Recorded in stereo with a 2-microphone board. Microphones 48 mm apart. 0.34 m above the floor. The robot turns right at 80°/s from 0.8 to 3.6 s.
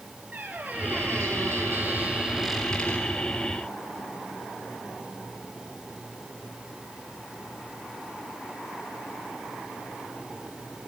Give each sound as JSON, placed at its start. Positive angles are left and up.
{"t": 0.3, "sound": "a squeak", "azimuth_deg": -140, "distance_m": 2.5}